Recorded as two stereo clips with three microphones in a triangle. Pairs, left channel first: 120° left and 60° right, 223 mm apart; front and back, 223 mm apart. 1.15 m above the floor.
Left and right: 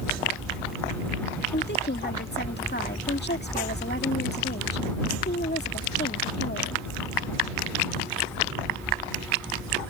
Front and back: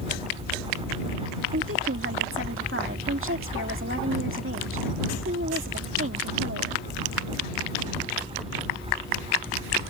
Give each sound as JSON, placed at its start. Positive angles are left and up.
{"t": 1.5, "sound": "a woman speaking", "azimuth_deg": 160}